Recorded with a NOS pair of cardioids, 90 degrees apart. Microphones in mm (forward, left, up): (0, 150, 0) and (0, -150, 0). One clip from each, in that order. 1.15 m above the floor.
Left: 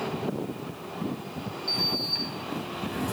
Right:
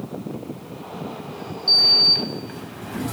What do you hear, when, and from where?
1.7 s a sliding door: 35° right, 3 m